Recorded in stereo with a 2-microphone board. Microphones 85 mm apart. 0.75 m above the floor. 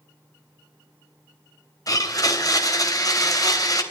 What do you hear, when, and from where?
1.9 s a blender: 45° left (ahead or behind), 3 m